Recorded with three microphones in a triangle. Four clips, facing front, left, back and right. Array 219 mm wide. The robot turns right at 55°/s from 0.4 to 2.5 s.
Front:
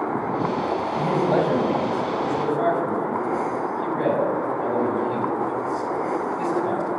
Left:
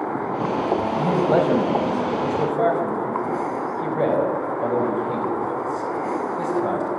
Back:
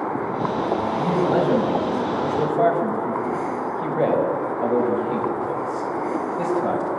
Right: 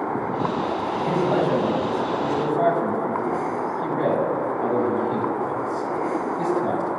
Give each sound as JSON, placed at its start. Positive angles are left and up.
{"t": 0.9, "sound": "a man speaking", "azimuth_deg": 65, "distance_m": 5.5}